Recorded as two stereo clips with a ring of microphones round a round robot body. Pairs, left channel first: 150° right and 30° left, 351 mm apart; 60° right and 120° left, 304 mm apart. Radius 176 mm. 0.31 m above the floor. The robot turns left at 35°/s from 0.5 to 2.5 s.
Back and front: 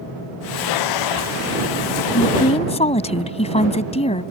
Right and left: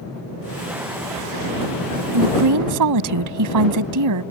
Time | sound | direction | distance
2.1 | a woman speaking | 150° left | ?